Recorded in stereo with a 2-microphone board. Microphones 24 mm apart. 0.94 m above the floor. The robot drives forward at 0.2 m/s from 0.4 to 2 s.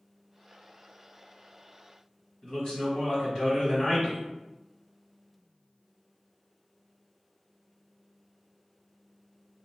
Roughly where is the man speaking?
Left.